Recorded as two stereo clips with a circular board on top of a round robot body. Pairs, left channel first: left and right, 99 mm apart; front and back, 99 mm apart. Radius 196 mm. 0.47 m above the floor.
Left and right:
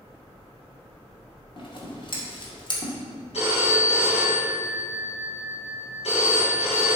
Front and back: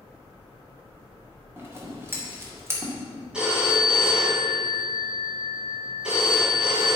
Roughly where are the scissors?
Behind left.